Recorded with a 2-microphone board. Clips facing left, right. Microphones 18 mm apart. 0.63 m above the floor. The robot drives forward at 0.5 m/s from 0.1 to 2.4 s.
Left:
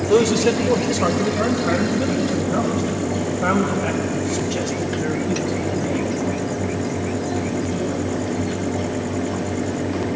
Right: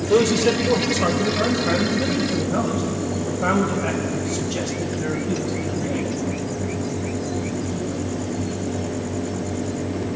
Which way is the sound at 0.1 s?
10° left (ahead or behind).